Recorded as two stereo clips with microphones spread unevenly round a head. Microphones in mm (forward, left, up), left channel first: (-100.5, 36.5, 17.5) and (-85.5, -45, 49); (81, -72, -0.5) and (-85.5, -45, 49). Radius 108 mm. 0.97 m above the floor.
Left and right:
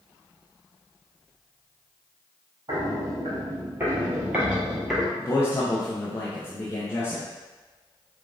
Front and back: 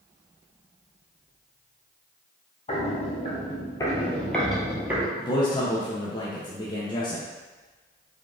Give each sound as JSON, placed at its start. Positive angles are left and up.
{"t": 2.7, "sound": "footsteps", "azimuth_deg": -65, "distance_m": 1.7}
{"t": 5.2, "sound": "a man speaking", "azimuth_deg": 50, "distance_m": 0.6}